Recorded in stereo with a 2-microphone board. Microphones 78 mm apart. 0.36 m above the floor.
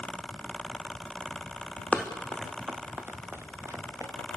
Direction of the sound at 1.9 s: 15° left (ahead or behind).